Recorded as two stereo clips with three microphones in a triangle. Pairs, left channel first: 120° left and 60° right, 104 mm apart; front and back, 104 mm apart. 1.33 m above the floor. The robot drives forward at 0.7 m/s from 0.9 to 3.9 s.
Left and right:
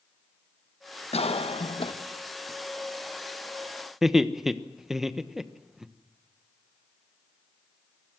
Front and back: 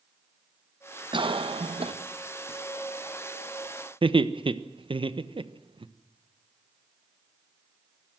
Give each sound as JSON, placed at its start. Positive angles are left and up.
{"t": 1.1, "sound": "a cough", "azimuth_deg": 140, "distance_m": 1.1}
{"t": 4.0, "sound": "laughter", "azimuth_deg": -145, "distance_m": 1.2}